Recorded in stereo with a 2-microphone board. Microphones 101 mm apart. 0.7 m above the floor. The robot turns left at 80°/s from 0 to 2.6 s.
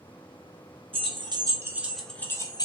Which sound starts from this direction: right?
Keys jangling, at 0.9 s.